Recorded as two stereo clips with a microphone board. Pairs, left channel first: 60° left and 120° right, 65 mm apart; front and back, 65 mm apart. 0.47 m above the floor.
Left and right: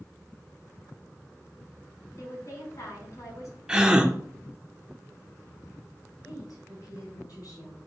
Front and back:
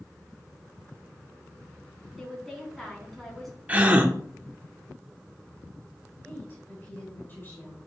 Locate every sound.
2.2 s a woman speaking: 90° left, 3.5 m
3.7 s a gasp: 175° right, 0.9 m
6.2 s a woman speaking: 65° left, 4 m